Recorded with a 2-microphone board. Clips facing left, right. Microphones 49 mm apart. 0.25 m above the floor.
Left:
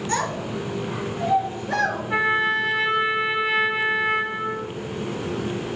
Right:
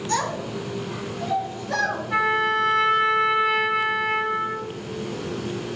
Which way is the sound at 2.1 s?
10° left (ahead or behind).